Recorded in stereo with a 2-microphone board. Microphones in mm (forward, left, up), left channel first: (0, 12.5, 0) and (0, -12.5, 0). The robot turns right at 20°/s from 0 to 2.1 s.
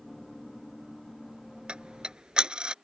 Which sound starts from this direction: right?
Ticking, at 1.7 s.